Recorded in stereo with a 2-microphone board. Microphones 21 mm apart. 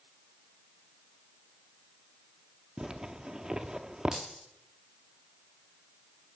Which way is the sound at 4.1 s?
15° right (ahead or behind).